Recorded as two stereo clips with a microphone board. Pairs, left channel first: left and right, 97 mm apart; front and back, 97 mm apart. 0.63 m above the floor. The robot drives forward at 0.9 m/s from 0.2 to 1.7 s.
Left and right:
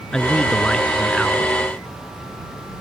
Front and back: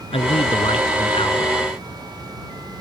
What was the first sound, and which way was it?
A man speaking, 10° left.